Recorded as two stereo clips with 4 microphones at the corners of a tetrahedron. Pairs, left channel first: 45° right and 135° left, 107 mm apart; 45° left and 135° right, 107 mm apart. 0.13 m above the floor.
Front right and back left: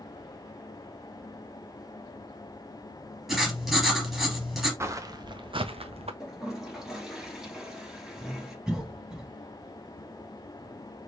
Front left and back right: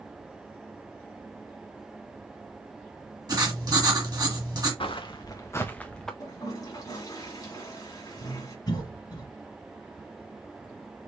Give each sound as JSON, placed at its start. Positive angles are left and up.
{"t": 3.3, "sound": "writing", "azimuth_deg": -140, "distance_m": 2.0}
{"t": 4.8, "sound": "footsteps", "azimuth_deg": 75, "distance_m": 0.7}
{"t": 6.2, "sound": "a toilet flushing", "azimuth_deg": 55, "distance_m": 1.6}
{"t": 8.7, "sound": "a cough", "azimuth_deg": 55, "distance_m": 1.4}